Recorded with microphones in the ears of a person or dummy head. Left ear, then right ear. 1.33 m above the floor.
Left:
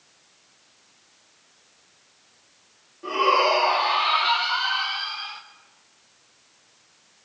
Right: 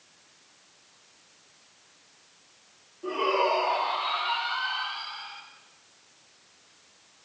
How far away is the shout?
About 2 m.